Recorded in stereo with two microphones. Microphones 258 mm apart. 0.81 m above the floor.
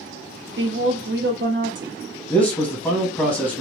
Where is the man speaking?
5° left (ahead or behind), 1.3 m.